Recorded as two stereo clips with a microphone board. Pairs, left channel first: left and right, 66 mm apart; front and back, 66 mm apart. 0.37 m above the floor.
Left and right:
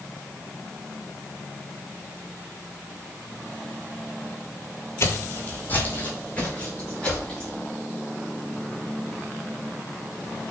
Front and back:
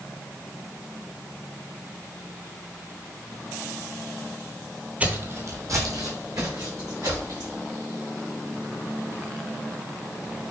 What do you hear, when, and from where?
5.0 s footsteps: 115° left, 0.5 m; by 7.5 s 165° left, 2.5 m